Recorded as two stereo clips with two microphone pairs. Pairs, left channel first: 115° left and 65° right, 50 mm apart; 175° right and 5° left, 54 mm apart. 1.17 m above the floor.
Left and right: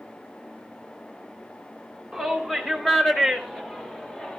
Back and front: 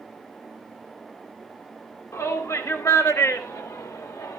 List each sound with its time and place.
2.1 s a shout: 155° right, 4 m; by 4.4 s 170° right, 2 m